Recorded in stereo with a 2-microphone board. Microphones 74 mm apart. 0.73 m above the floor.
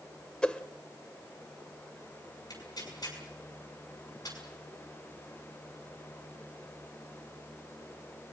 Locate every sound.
0.4 s a whoosh: 15° left (ahead or behind), 1.2 m
2.5 s tearing paper: 60° left (ahead or behind), 6.5 m